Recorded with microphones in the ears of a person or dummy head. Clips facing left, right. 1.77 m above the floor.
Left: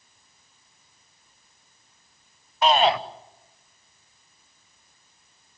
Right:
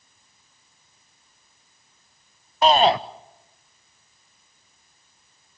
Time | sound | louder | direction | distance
2.6 | a shout | right 3 dB | 35° right (ahead or behind) | 1.0 m